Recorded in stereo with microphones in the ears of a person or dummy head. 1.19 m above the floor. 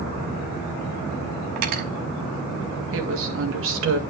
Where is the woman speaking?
70° right (ahead or behind), 1.8 m.